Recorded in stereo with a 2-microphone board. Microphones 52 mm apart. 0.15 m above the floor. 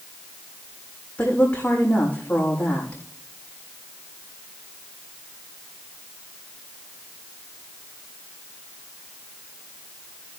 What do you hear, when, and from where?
1.2 s a woman speaking: 25° left (ahead or behind), 6.5 m